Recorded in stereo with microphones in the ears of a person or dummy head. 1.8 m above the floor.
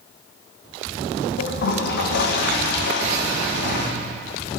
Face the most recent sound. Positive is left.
turn(degrees=55)  # may be behind; listen again after turning